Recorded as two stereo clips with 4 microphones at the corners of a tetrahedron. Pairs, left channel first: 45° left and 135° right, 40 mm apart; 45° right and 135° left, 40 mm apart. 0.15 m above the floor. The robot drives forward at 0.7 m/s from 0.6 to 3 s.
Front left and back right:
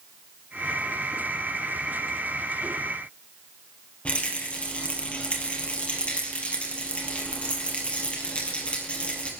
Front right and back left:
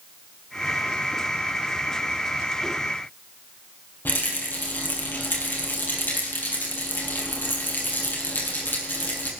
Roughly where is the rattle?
Ahead.